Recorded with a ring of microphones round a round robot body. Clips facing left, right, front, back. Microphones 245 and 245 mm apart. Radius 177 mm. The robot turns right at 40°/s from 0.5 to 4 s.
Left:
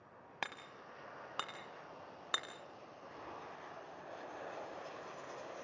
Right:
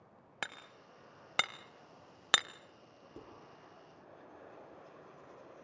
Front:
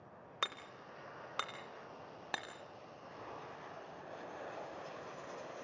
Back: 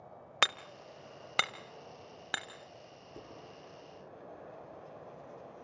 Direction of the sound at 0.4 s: 175° right.